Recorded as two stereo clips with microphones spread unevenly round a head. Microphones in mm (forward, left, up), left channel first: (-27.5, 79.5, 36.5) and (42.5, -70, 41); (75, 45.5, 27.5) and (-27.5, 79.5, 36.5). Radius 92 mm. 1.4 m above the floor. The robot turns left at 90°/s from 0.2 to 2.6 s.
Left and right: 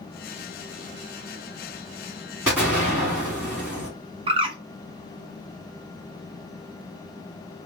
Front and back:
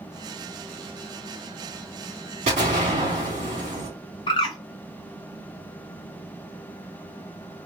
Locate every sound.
2.5 s an explosion: 150° right, 2 m; by 3.9 s 165° right, 2 m
4.3 s a bird: 30° right, 0.7 m